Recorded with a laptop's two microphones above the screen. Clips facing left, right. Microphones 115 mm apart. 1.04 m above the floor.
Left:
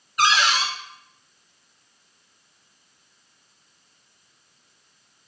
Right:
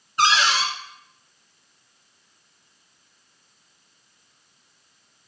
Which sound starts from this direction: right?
A cupboard door, at 0.2 s.